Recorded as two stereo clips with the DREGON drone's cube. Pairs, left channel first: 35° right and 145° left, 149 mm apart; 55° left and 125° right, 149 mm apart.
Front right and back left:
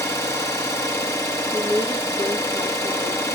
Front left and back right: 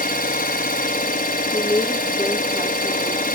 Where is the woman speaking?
75° right, 8.5 m.